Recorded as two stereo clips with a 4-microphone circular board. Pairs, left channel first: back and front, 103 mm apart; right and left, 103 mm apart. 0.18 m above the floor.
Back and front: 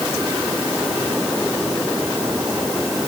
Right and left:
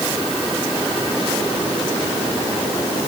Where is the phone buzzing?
No phone buzzing in this recording.